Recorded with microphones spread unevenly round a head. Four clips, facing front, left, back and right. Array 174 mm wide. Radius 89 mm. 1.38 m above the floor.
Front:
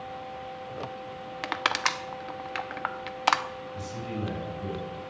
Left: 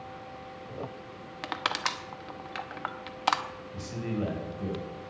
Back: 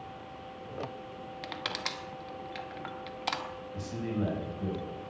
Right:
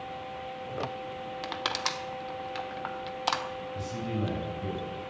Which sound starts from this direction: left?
A man speaking, at 3.7 s.